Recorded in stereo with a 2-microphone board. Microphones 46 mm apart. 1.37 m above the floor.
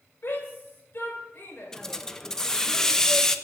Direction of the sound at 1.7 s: 15° left (ahead or behind).